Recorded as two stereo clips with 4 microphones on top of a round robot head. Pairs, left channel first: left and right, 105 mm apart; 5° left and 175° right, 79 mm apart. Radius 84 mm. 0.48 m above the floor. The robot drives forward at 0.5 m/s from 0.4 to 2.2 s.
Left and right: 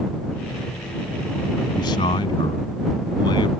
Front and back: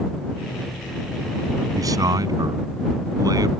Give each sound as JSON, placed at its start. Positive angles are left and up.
{"t": 1.8, "sound": "a man speaking", "azimuth_deg": 145}